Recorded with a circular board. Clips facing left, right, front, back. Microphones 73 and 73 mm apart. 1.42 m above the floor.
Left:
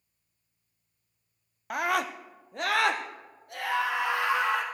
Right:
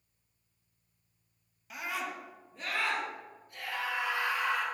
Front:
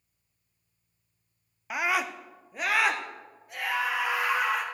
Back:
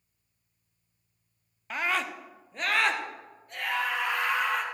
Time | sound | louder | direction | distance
1.7 | a scream | left 9 dB, front 2 dB | 80° left | 0.6 m